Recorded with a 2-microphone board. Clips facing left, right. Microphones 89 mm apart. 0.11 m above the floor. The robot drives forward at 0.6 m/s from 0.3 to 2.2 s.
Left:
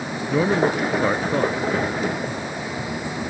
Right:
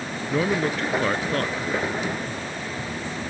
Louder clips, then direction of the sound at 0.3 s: Left 4 dB; 10° left (ahead or behind).